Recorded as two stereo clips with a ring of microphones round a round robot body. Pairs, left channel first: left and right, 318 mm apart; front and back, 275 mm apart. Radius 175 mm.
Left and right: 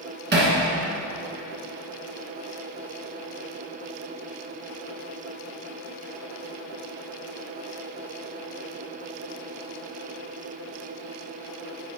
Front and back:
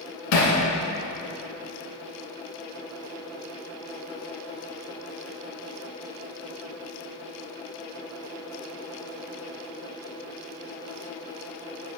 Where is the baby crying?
I don't hear a baby crying.